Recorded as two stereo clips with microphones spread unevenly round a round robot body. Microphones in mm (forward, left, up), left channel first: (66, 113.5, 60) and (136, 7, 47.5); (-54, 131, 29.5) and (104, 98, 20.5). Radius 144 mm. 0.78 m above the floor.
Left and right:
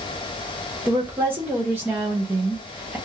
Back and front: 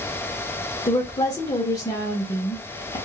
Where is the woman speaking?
125° right, 0.5 m.